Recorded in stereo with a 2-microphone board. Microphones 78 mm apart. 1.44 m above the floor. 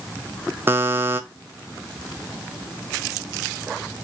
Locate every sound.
0.7 s a buzzer: 30° right (ahead or behind), 0.5 m